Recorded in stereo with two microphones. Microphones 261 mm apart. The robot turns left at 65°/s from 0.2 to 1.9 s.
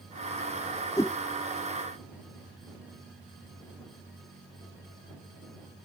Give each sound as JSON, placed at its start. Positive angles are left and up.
{"t": 1.0, "sound": "a whoosh", "side_deg": 15}